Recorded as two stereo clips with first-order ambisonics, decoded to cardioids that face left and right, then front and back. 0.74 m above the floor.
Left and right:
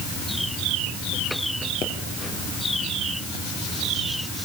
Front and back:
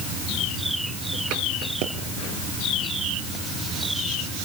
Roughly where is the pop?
Behind left.